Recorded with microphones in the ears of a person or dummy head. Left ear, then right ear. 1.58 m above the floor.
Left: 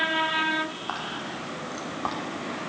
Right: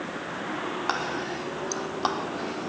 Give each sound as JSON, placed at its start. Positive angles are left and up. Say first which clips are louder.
{"t": 0.9, "sound": "whispering", "louder": "right 3 dB", "side_deg": -75, "distance_m": 4.0}